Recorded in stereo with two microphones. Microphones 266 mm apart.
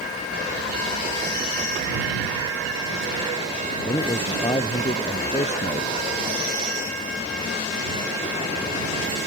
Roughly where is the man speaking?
Centre.